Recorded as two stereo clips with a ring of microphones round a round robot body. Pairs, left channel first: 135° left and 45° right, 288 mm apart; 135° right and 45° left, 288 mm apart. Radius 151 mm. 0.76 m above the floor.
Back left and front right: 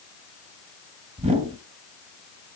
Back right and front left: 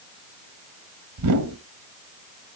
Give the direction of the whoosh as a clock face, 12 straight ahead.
11 o'clock.